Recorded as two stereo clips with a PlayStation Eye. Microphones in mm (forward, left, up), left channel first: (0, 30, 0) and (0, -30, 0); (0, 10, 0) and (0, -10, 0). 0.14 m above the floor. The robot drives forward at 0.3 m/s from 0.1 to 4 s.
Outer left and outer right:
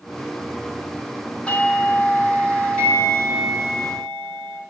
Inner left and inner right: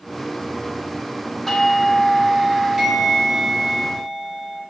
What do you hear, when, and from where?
1.5 s a doorbell: 20° left (ahead or behind), 2 m